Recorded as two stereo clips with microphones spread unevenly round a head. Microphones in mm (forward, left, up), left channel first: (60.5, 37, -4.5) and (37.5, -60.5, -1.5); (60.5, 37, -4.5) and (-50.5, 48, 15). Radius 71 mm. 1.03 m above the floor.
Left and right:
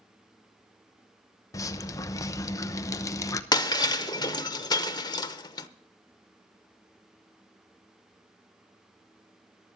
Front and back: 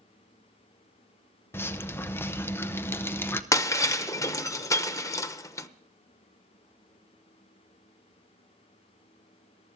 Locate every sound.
1.5 s dripping: 40° left, 0.8 m
3.5 s breaking glass: 55° left, 0.8 m